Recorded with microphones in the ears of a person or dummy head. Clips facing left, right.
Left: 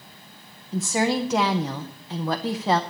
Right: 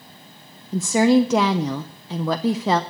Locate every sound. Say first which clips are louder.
0.7 s a woman speaking: right 8 dB; 70° right (ahead or behind), 0.6 m